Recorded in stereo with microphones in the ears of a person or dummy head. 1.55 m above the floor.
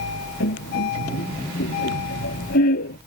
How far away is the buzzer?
No buzzer in this recording.